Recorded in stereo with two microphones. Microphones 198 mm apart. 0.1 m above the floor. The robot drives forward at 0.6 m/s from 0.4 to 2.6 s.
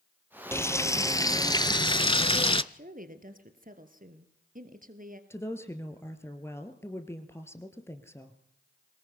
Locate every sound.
0.5 s frying: 15° left (ahead or behind), 1.3 m; by 2.6 s 25° left (ahead or behind), 0.6 m
2.7 s a woman speaking: 45° right (ahead or behind), 2.0 m
5.3 s a woman speaking: 15° left (ahead or behind), 1.9 m